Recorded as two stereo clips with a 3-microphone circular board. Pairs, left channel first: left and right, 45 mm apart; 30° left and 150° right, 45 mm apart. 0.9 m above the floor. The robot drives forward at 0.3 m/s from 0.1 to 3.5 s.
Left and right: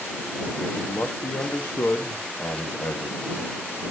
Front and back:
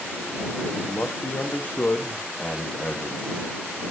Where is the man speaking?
60° left, 1.3 m; by 3.5 s 100° left, 1.2 m.